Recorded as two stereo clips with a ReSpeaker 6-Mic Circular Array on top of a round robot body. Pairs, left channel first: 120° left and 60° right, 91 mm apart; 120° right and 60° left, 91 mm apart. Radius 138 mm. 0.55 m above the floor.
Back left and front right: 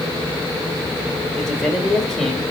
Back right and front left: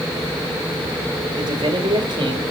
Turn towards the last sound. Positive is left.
turn(degrees=35)